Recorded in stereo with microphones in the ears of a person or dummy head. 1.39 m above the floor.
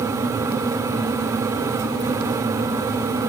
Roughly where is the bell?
No bell in this recording.